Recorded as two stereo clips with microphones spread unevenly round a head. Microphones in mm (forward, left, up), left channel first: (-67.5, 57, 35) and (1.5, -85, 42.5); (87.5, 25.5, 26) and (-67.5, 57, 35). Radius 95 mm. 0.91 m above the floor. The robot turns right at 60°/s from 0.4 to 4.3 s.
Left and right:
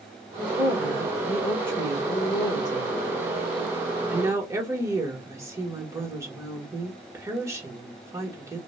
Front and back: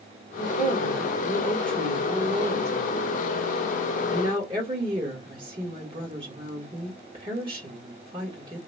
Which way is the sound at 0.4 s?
10° right.